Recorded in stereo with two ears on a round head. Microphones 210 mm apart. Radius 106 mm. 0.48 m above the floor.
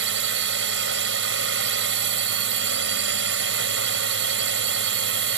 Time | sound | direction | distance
0.0 | a drone | 50° right (ahead or behind) | ?